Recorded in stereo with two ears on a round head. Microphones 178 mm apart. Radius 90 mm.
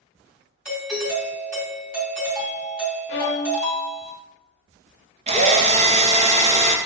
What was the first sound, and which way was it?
A doorbell, 5° right (ahead or behind).